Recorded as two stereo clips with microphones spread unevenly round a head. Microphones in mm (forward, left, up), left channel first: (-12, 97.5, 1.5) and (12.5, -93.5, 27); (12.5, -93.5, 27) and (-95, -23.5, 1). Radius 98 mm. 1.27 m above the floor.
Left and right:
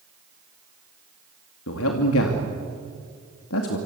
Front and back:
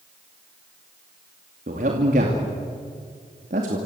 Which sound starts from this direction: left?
A man speaking, at 1.7 s.